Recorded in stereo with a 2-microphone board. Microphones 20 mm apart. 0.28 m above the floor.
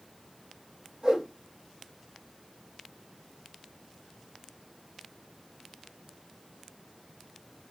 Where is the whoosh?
40° right (ahead or behind), 5.5 m.